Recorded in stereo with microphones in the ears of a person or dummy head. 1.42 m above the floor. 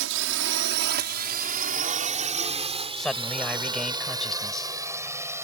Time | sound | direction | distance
0.0 | a drone | 70° right (ahead or behind) | ?
3.0 | a man speaking | 5° left (ahead or behind) | ?